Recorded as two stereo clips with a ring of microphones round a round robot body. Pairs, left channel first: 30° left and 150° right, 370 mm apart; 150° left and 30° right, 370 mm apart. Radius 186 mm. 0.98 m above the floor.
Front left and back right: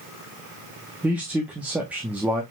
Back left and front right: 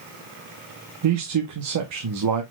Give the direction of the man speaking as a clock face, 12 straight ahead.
2 o'clock.